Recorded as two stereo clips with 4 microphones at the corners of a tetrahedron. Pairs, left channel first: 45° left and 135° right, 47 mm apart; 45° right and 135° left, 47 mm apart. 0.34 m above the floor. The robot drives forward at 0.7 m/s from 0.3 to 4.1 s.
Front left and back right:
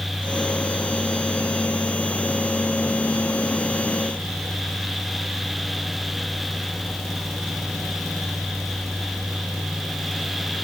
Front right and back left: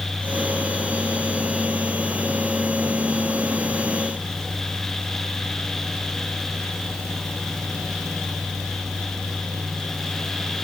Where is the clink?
No clink in this recording.